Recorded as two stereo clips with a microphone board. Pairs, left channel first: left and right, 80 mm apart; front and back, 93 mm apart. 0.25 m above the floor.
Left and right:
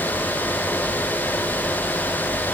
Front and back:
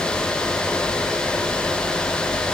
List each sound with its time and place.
Only background noise.